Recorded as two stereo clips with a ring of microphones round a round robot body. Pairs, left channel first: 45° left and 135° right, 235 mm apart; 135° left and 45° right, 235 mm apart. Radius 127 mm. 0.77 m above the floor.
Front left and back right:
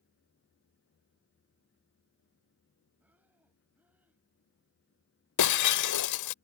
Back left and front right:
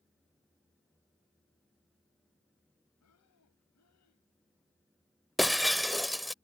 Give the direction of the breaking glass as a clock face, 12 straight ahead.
11 o'clock.